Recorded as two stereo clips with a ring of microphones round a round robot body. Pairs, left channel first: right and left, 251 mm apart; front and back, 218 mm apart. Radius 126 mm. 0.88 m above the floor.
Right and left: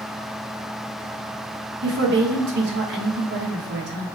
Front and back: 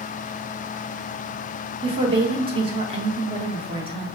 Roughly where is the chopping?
No chopping in this recording.